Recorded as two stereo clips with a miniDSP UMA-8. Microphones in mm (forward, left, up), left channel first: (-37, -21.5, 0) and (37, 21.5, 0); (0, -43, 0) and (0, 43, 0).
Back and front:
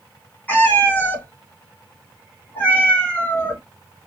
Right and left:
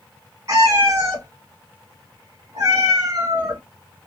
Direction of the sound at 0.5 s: 140° left.